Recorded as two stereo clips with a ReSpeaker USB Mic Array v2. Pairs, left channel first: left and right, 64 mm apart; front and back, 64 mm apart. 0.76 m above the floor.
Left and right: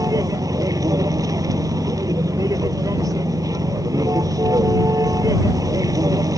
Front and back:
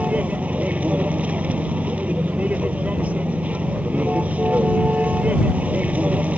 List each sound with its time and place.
0.0 s a vehicle: 110° right